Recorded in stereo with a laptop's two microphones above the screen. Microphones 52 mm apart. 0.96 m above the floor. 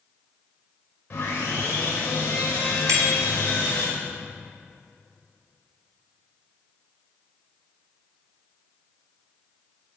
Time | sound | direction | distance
1.1 | sawing | 30° left (ahead or behind) | 5 m
2.9 | a bicycle bell | 80° right | 4.5 m